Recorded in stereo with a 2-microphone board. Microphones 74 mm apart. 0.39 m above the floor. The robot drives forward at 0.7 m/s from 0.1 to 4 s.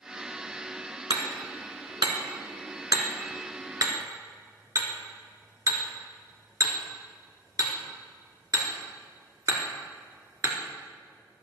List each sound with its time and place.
1.1 s hammering: 75° right (ahead or behind), 1.9 m; by 10.6 s 50° right (ahead or behind), 2.5 m